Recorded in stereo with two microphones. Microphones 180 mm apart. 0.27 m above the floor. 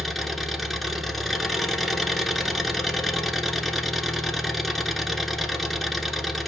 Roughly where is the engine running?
Centre.